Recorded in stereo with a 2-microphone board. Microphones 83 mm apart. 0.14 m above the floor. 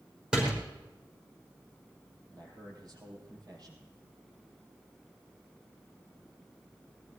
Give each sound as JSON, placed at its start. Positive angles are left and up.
{"t": 0.3, "sound": "a door slam", "side_deg": -10, "distance_m": 5.5}
{"t": 2.3, "sound": "a man speaking", "side_deg": -60, "distance_m": 4.5}